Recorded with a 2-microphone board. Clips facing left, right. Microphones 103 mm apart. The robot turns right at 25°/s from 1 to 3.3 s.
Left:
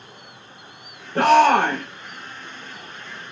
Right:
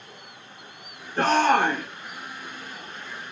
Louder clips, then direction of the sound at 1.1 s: Left 6 dB; 70° left (ahead or behind).